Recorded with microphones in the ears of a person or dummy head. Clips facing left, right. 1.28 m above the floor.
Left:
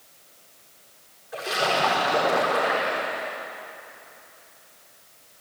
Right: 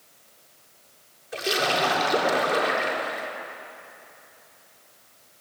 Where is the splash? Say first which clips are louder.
Even; 45° right (ahead or behind), 4 m.